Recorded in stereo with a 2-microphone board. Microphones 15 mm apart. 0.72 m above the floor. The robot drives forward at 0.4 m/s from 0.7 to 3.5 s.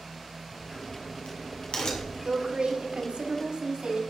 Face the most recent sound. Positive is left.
turn(degrees=-70)  # may be behind; listen again after turning